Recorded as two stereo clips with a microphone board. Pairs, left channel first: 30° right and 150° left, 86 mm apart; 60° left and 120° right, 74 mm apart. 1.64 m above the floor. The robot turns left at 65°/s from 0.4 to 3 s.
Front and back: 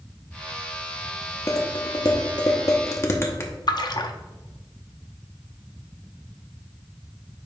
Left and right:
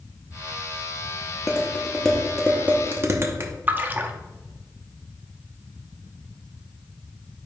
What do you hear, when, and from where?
1.5 s dishes clattering: 20° left, 0.9 m; by 3.5 s 80° right, 0.9 m
3.7 s a splash: 60° right, 0.6 m